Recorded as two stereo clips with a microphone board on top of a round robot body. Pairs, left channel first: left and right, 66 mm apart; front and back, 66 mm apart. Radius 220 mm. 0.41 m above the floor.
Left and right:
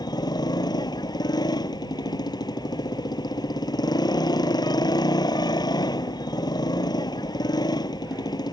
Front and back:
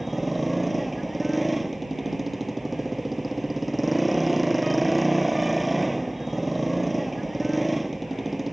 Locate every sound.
0.0 s a motorcycle: 90° left